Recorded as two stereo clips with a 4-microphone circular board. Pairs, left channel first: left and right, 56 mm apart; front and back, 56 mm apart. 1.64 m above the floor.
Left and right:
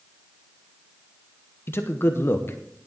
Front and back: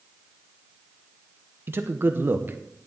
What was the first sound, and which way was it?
A man speaking, 135° left.